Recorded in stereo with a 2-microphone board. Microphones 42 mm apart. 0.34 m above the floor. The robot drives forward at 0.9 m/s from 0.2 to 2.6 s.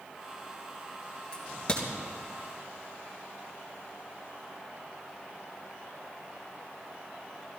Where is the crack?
20° left (ahead or behind), 3.5 m; by 1.9 s 25° left (ahead or behind), 3 m.